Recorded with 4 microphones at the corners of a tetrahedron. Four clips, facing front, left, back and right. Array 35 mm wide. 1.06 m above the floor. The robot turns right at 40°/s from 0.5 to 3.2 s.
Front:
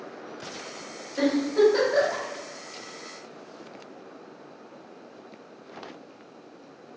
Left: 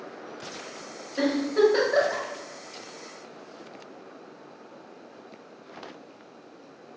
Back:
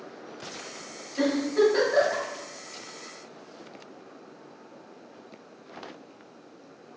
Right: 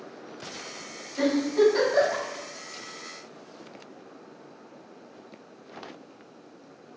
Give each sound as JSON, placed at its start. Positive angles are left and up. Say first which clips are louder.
{"t": 1.2, "sound": "a giggle", "louder": "even, front 2 dB", "azimuth_deg": 55, "distance_m": 1.9}